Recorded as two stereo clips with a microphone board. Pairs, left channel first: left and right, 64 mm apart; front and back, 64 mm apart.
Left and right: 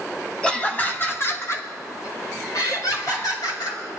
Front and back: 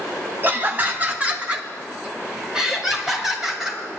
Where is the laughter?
160° left, 1.6 m; by 3.8 s 95° left, 4 m.